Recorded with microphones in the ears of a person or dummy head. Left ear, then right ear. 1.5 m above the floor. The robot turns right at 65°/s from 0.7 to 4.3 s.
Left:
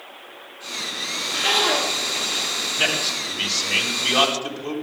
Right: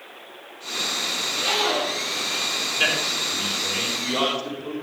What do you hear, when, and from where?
1.2 s a zipper: 60° left, 6.5 m; by 2.5 s 150° left, 6.5 m
2.8 s a man speaking: 10° left (ahead or behind), 4 m; by 4.7 s 70° left (ahead or behind), 4 m